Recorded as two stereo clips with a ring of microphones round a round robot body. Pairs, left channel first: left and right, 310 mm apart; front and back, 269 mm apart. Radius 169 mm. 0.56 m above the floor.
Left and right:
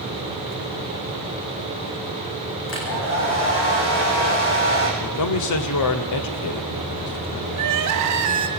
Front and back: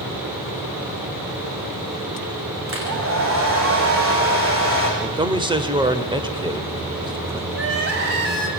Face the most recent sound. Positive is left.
turn(degrees=-125)